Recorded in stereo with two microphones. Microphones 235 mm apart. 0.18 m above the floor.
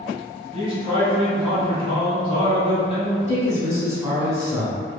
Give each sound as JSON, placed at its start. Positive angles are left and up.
{"t": 0.5, "sound": "a man speaking", "side_deg": 15, "distance_m": 1.0}
{"t": 3.3, "sound": "a man speaking", "side_deg": -15, "distance_m": 1.2}